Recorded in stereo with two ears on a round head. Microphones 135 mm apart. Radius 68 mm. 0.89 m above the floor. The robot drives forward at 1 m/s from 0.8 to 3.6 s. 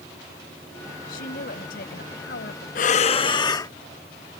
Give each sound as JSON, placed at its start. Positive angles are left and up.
{"t": 1.1, "sound": "a woman speaking", "side_deg": 60}
{"t": 2.8, "sound": "breathing", "side_deg": 60}